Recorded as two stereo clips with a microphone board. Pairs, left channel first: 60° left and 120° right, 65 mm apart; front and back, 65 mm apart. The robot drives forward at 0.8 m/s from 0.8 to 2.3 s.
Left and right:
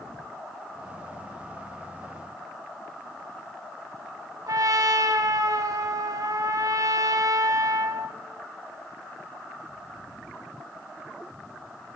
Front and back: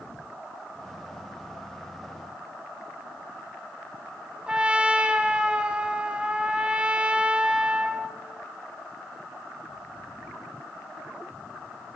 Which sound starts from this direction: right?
A trumpet, at 4.5 s.